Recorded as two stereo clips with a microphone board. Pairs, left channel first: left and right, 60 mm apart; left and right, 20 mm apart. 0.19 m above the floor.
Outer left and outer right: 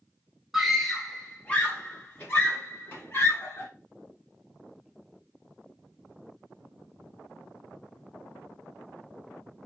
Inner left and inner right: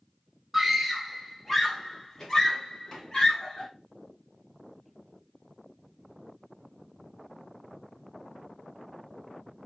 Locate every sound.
0.5 s a scream: 5° right (ahead or behind), 1.0 m; by 3.7 s 50° left (ahead or behind), 2.0 m